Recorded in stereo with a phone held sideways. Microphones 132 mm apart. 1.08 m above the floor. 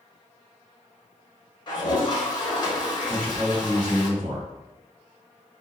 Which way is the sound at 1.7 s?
35° left (ahead or behind).